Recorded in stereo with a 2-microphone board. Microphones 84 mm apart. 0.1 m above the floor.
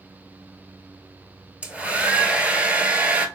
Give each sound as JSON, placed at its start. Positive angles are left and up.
{"t": 1.6, "sound": "a hair dryer", "side_deg": -15, "distance_m": 0.7}